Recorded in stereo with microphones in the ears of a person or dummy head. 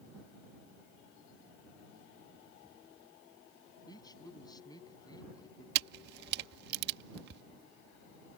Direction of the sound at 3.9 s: 20° left (ahead or behind).